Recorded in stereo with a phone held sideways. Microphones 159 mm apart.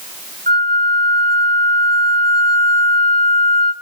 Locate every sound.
0.5 s a flute: 65° right (ahead or behind), 3.5 m